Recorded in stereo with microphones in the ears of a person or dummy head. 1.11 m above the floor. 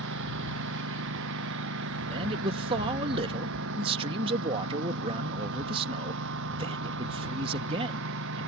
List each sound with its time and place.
0.0 s a lawn mower: 65° right (ahead or behind)
2.1 s a man speaking: 30° right (ahead or behind)